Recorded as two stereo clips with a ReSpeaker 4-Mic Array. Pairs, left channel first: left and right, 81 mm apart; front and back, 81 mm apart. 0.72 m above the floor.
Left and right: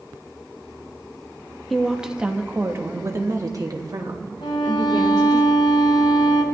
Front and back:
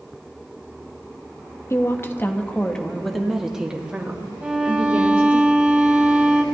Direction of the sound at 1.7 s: Straight ahead.